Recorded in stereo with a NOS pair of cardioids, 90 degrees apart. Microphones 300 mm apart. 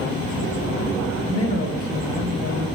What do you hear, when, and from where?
1.2 s a man speaking: 55° left, 1.9 m